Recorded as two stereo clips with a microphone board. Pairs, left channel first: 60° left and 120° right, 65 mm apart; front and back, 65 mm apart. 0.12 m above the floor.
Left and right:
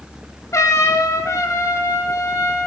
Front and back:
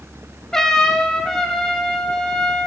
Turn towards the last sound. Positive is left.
turn(degrees=85)